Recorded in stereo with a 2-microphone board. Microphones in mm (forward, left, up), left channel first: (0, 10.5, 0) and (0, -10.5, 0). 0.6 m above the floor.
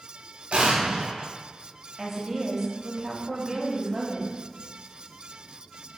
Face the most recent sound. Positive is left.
turn(degrees=-25)  # may be behind; listen again after turning